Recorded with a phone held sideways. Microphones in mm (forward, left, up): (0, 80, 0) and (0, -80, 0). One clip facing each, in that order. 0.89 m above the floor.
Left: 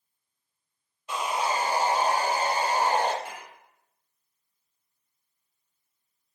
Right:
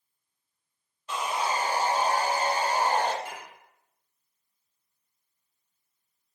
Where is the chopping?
No chopping in this recording.